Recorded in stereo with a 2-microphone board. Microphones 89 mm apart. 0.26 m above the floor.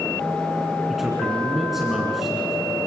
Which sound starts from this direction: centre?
A man speaking, at 0.9 s.